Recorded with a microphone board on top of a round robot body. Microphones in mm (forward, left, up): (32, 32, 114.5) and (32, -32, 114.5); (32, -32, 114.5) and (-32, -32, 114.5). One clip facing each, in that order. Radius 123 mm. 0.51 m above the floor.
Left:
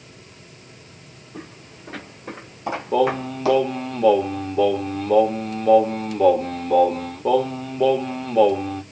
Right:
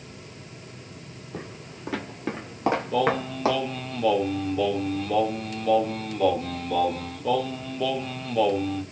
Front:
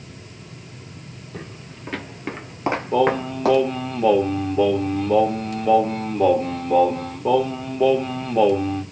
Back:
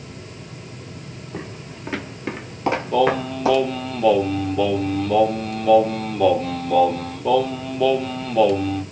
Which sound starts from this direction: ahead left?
Singing, at 2.9 s.